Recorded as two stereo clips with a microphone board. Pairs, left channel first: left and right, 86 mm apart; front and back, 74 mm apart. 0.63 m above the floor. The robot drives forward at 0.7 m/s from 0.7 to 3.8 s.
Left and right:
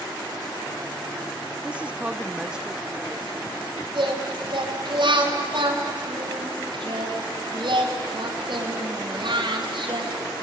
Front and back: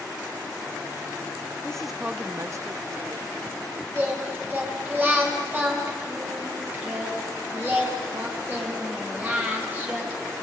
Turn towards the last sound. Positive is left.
turn(degrees=-115)